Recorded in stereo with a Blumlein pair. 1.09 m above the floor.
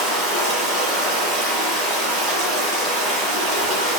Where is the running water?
35° right, 7 m.